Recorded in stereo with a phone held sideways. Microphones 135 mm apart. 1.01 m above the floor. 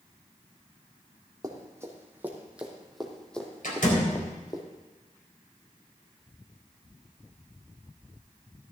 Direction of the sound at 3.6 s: 85° left.